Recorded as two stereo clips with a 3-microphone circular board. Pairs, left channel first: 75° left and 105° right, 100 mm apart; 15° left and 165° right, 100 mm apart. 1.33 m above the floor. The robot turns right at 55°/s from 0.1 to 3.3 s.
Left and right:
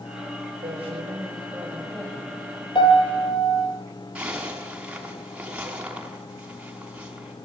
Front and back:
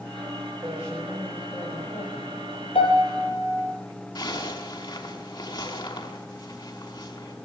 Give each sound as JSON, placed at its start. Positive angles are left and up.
{"t": 0.6, "sound": "a woman speaking", "azimuth_deg": -100, "distance_m": 7.5}
{"t": 2.8, "sound": "a piano", "azimuth_deg": 35, "distance_m": 6.0}
{"t": 4.2, "sound": "a zipper", "azimuth_deg": -25, "distance_m": 5.5}